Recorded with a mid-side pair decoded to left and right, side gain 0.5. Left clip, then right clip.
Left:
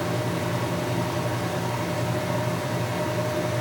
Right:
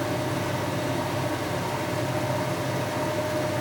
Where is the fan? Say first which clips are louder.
Even; 10° left, 0.9 m.